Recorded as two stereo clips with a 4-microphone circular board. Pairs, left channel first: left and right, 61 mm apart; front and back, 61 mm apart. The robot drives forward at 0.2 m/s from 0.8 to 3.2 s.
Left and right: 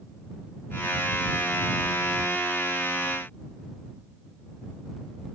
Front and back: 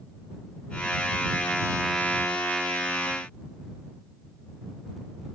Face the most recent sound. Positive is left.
No sound to turn to.